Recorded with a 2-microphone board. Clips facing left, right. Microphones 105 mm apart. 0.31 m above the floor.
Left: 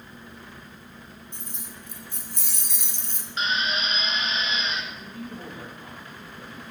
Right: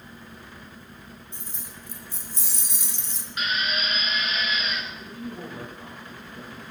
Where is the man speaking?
30° right (ahead or behind), 9.5 m.